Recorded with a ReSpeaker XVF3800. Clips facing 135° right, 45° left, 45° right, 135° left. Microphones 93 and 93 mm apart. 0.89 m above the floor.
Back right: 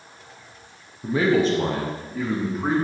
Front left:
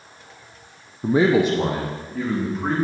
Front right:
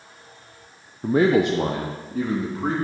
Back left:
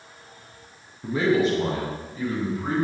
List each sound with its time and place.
1.0 s a man speaking: straight ahead, 0.7 m; by 2.8 s 50° right, 2.5 m